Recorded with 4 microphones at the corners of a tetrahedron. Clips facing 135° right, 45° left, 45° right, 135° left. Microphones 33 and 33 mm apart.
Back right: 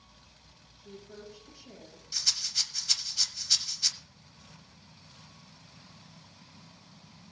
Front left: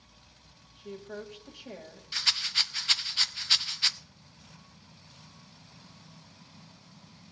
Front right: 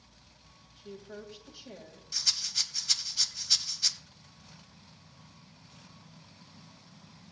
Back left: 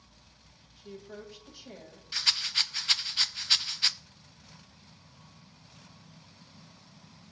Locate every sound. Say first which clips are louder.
0.8 s a woman speaking: front left 7 dB, even; 40° left, 1.6 m
2.1 s a rattle: front left 5 dB, back left 4 dB; 85° left, 0.6 m